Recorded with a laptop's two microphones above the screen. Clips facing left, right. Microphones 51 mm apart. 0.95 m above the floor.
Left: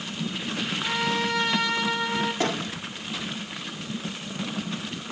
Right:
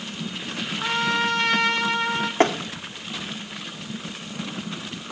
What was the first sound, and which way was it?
A trumpet, 55° right (ahead or behind).